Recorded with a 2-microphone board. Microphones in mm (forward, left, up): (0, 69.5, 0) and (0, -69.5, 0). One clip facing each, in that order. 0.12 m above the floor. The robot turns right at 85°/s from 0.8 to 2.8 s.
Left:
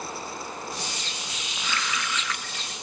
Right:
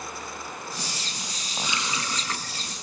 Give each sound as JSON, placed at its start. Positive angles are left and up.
{"t": 1.6, "sound": "a running tap", "azimuth_deg": -155, "distance_m": 1.0}